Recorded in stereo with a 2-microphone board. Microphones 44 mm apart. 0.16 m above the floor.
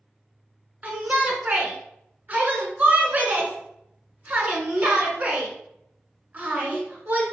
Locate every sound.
0.8 s a shout: 35° right (ahead or behind), 1.4 m